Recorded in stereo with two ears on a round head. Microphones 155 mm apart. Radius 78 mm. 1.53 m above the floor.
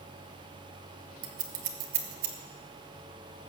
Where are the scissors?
50° right (ahead or behind), 1.7 m.